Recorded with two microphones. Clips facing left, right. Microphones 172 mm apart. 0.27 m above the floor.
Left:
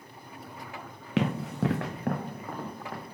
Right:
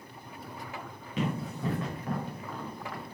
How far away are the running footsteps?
About 1.2 m.